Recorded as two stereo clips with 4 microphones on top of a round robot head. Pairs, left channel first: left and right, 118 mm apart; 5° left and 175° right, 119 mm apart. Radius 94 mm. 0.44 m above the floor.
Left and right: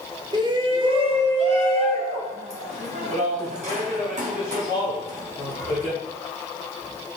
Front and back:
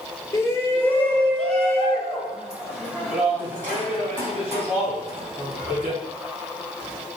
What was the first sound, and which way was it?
A shout, 55° right.